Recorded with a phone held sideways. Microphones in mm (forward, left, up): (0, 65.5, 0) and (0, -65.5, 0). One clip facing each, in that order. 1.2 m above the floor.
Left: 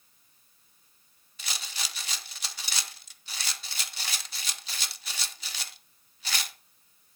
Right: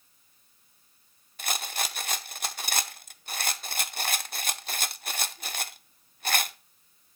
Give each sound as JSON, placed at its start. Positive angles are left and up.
{"t": 1.4, "sound": "a rattle", "side_deg": -55, "distance_m": 0.6}